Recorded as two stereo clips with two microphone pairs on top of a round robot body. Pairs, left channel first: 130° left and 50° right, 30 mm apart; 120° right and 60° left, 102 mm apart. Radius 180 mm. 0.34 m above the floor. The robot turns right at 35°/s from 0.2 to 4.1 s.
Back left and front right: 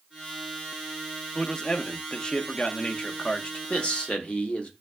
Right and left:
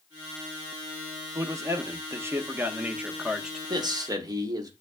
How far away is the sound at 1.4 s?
About 0.8 m.